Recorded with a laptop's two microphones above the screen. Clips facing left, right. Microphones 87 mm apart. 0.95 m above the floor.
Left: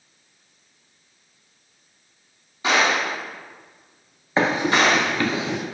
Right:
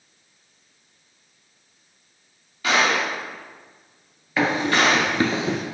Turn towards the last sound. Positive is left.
turn(degrees=-45)  # may be behind; listen again after turning